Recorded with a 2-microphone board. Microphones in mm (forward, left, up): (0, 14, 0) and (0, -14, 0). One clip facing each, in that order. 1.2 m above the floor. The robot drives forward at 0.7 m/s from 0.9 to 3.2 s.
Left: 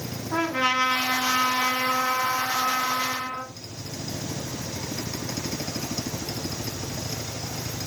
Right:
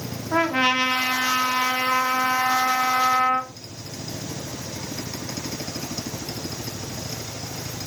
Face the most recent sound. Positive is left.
turn(degrees=-70)  # may be behind; listen again after turning